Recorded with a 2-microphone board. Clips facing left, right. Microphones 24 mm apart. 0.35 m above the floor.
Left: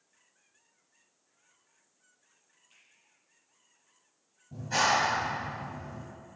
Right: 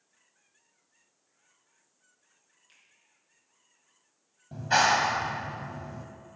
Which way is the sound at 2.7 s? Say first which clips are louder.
Right 1 dB; 75° right (ahead or behind).